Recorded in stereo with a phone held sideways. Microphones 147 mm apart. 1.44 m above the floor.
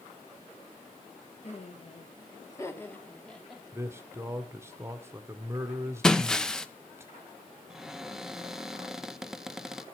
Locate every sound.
1.4 s laughter: 50° left (ahead or behind), 1.8 m; by 3.6 s centre (ahead or behind), 2.5 m
3.7 s a man speaking: 15° right (ahead or behind), 1.0 m
6.0 s breaking glass: 5° left (ahead or behind), 0.6 m
7.7 s a cupboard door: 5° right (ahead or behind), 0.6 m